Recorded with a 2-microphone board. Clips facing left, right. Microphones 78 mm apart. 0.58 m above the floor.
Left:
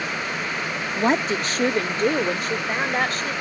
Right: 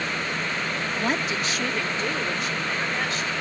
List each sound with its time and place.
1.0 s a woman speaking: 25° left (ahead or behind); by 3.3 s 45° left (ahead or behind)